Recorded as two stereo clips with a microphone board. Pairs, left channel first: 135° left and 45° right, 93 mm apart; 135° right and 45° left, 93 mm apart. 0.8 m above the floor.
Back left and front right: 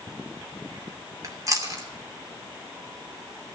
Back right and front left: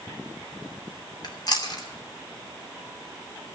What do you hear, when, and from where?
1.2 s chewing: 95° right, 2.5 m